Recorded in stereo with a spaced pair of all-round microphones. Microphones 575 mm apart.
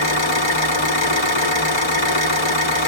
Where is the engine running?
50° left (ahead or behind), 1.1 m.